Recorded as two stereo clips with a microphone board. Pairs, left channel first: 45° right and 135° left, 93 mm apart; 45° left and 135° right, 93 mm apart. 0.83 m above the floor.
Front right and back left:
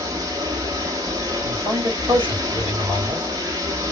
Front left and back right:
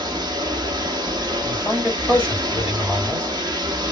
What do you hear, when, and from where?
0.0 s running water: straight behind, 0.8 m
1.4 s a man speaking: 120° left, 2.0 m